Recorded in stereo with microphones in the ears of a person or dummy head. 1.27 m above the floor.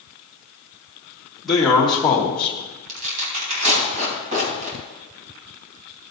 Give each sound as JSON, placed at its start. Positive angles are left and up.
{"t": 1.4, "sound": "a man speaking", "side_deg": 0, "distance_m": 2.5}
{"t": 2.9, "sound": "tearing paper", "side_deg": -40, "distance_m": 3.5}